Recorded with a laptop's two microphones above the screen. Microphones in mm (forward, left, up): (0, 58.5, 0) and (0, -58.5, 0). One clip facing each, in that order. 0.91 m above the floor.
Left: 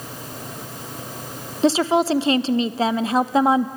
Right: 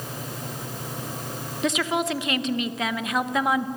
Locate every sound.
1.6 s a woman speaking: 30° left (ahead or behind), 0.7 m